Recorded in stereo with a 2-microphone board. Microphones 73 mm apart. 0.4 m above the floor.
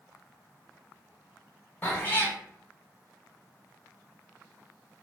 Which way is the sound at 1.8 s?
25° left (ahead or behind).